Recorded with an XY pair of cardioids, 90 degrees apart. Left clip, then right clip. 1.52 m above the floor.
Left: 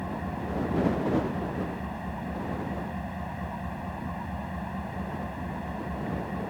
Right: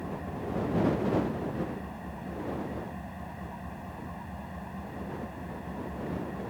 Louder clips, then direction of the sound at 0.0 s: Left 3 dB; 45° left.